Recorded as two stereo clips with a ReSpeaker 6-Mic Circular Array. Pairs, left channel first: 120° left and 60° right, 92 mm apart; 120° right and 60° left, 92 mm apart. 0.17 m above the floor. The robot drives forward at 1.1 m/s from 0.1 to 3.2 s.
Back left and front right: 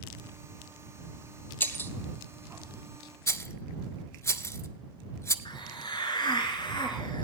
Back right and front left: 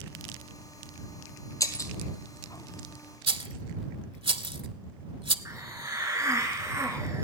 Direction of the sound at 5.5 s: 105° left.